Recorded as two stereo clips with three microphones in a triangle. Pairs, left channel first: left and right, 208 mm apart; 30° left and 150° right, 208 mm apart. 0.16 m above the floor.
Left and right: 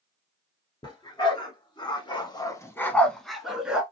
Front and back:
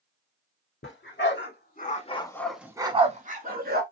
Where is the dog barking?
25° left, 1.1 m; by 3.8 s 175° right, 0.9 m.